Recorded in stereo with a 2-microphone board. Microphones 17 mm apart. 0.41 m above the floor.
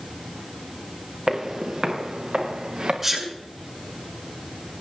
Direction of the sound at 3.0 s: 25° right (ahead or behind).